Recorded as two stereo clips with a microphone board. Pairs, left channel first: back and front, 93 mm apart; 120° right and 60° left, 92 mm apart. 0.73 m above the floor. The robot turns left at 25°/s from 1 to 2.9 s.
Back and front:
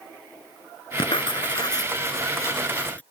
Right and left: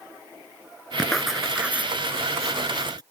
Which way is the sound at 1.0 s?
155° left.